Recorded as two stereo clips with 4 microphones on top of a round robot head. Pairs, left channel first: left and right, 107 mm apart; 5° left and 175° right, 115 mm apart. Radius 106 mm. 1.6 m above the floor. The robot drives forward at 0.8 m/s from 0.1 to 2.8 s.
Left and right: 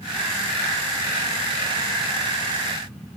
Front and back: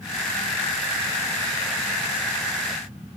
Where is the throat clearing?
No throat clearing in this recording.